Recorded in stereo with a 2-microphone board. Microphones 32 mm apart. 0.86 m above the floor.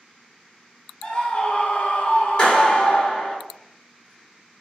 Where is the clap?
30° left (ahead or behind), 1.8 m.